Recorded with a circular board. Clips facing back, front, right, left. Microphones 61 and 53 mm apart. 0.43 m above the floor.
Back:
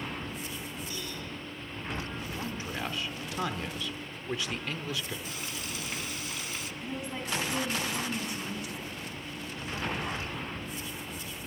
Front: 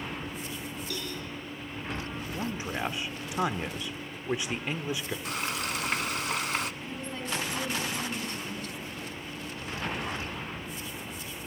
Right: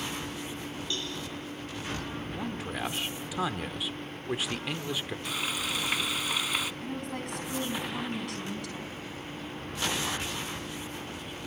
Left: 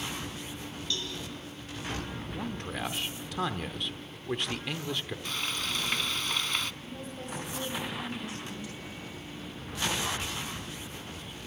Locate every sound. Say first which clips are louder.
0.9 s a cowbell: front 3 dB, left 1 dB; 20° right, 9 m
2.3 s a man speaking: front 5 dB, even; 15° right, 1.0 m
5.2 s frying: front 6 dB, right 2 dB; 10° right, 0.5 m
6.8 s a woman speaking: even, right 5 dB; 100° right, 4.5 m